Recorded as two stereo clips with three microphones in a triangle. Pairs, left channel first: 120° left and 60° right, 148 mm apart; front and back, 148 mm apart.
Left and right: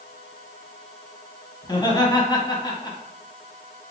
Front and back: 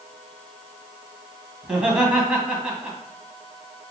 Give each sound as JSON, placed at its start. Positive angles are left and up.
{"t": 1.6, "sound": "laughter", "azimuth_deg": 100, "distance_m": 1.3}